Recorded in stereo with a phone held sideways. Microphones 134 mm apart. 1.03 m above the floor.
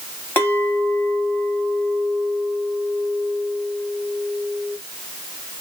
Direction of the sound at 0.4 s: 15° left (ahead or behind).